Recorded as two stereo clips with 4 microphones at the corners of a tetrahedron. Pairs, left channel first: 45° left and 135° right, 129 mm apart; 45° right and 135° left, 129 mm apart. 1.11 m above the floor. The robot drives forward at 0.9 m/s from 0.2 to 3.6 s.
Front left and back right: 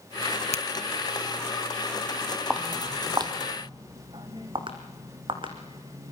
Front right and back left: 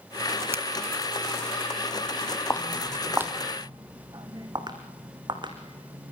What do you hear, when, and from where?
0.5 s a finger snap: 65° left, 0.9 m; by 0.7 s 70° left, 0.9 m
2.5 s footsteps: 60° right, 1.1 m; by 6.1 s straight behind, 3.5 m